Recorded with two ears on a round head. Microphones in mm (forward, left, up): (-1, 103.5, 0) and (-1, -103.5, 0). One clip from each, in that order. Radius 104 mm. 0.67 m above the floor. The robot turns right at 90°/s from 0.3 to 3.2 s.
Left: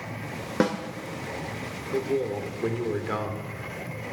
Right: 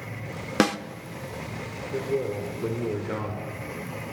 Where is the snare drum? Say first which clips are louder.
Right 2 dB; 75° right (ahead or behind), 0.9 m; by 0.8 s 80° right, 0.9 m.